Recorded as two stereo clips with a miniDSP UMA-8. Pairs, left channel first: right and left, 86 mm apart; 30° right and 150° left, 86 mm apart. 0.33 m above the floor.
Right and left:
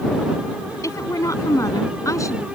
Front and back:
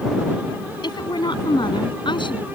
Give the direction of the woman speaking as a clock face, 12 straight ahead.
1 o'clock.